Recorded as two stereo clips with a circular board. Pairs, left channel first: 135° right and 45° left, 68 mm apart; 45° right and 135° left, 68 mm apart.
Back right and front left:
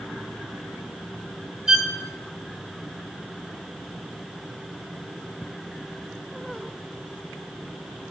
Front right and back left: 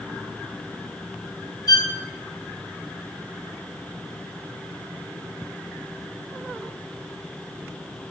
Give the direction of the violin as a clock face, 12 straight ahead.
1 o'clock.